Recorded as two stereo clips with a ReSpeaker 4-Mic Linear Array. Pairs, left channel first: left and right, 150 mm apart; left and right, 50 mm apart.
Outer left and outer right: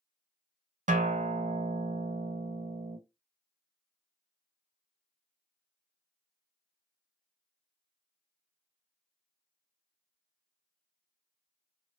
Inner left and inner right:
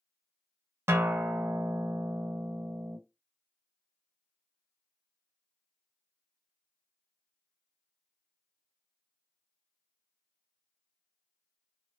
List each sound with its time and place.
0.9 s a guitar: 55° right (ahead or behind), 0.5 m